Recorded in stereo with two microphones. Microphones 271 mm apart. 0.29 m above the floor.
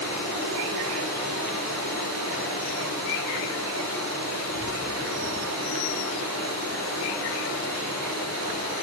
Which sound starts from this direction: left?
Running water, at 0.0 s.